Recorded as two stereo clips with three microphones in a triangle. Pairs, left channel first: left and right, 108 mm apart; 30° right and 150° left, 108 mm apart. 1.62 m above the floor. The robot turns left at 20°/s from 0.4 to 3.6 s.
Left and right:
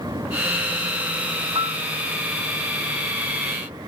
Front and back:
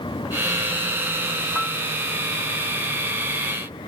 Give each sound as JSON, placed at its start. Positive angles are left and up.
{"t": 1.6, "sound": "a piano", "azimuth_deg": -120}